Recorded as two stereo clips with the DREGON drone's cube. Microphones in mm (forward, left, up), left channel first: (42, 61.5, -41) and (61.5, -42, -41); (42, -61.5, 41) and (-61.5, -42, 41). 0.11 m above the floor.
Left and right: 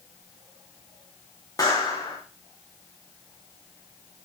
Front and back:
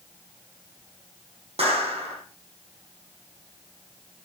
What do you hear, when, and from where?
1.6 s a clap: 155° left, 7 m